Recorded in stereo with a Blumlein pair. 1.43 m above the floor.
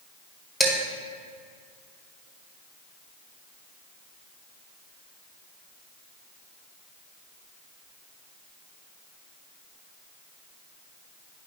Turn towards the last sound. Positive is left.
turn(degrees=0)